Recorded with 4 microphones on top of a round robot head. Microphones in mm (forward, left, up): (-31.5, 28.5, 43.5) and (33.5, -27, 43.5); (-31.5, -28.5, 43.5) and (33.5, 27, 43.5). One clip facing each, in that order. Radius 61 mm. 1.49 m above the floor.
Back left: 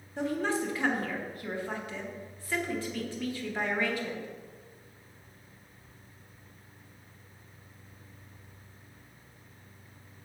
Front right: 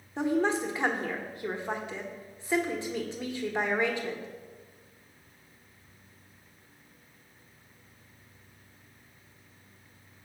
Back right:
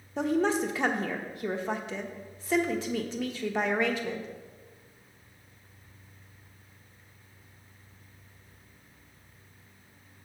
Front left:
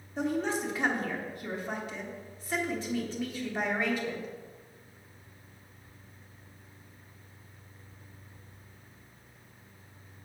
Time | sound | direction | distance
0.2 | a woman speaking | 110° right | 1.1 m